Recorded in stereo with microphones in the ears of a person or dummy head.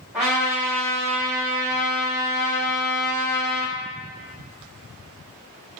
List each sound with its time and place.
0.1 s a trumpet: centre (ahead or behind), 1.6 m